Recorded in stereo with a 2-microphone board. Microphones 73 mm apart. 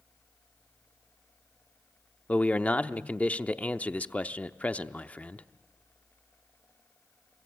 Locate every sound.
2.3 s a man speaking: 20° left (ahead or behind), 0.7 m